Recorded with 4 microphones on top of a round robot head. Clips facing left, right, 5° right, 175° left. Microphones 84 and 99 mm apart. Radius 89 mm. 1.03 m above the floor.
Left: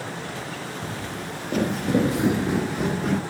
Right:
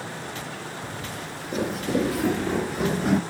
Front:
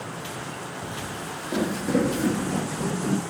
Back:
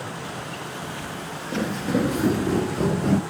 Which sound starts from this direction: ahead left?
Footsteps, at 0.8 s.